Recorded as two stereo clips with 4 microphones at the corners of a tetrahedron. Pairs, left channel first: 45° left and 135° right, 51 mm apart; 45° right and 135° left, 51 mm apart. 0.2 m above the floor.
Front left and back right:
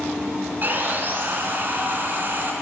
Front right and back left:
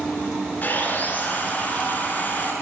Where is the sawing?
95° right, 2.5 m.